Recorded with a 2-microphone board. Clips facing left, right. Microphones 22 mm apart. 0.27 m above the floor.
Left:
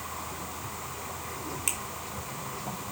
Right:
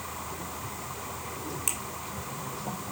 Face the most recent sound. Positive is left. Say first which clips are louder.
# left 1 dB
turn(degrees=20)  # may be behind; listen again after turning